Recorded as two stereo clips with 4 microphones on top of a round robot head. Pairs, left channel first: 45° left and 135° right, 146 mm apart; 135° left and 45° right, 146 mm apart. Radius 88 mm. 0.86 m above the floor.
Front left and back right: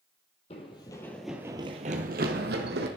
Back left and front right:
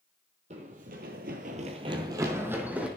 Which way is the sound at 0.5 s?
5° right.